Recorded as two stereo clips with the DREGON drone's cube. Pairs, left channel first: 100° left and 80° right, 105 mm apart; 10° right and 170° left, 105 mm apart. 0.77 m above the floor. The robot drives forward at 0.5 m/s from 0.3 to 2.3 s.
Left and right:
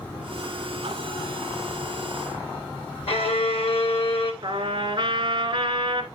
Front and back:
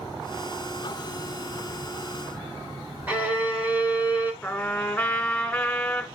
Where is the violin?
95° left, 1.9 m.